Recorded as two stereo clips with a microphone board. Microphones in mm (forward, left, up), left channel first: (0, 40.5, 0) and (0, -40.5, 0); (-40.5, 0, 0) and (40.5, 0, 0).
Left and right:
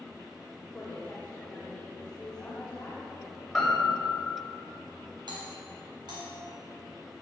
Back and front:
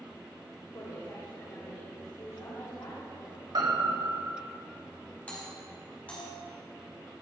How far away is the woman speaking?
About 2.5 m.